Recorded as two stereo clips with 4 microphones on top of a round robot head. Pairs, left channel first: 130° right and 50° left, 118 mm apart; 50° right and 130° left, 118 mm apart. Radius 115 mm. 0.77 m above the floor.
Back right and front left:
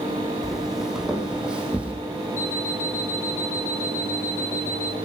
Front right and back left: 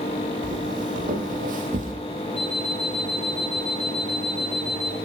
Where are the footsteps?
135° left, 3 m; by 1.9 s 130° left, 2 m.